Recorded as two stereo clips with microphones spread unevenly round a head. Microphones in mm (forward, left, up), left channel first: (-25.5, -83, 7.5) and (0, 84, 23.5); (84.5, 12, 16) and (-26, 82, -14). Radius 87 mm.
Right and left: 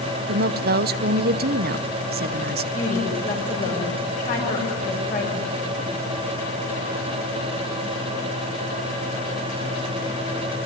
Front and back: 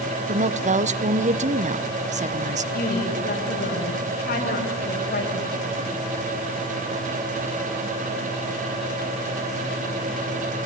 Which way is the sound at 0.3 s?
115° left.